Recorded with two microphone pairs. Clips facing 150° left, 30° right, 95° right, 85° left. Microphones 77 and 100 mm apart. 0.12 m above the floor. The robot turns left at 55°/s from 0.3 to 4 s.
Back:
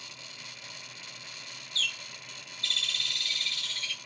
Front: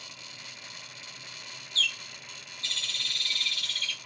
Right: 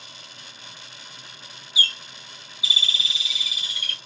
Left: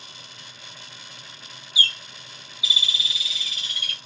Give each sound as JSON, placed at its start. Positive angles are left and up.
{"t": 1.8, "sound": "a bird", "azimuth_deg": -70, "distance_m": 1.7}